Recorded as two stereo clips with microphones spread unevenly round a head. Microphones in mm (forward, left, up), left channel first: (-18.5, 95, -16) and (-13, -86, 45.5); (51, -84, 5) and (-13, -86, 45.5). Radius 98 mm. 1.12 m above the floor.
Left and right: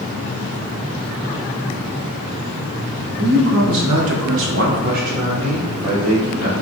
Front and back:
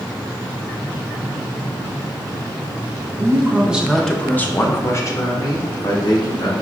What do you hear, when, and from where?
3.2 s a man speaking: 125° right, 1.0 m; by 6.5 s 20° right, 2.5 m